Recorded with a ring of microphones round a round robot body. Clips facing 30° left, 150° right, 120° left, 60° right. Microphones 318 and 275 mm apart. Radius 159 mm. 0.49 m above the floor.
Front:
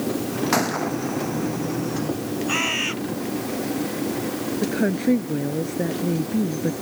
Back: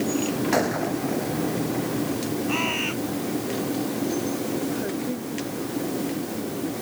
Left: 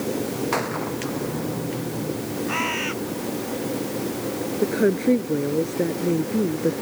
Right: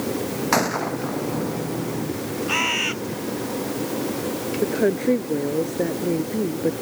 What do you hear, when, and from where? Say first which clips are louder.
0.5 s a gunshot: even, right 3 dB; 35° right
2.5 s a bird: back 1 dB, even; 20° right
4.6 s a woman speaking: front 6 dB, left 1 dB; 45° left